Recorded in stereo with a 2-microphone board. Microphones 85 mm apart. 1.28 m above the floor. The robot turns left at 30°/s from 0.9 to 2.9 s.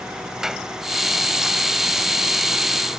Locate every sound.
0.4 s a clap: 5° right (ahead or behind)